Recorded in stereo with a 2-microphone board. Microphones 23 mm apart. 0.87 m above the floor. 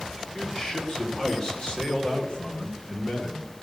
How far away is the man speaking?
About 3.5 m.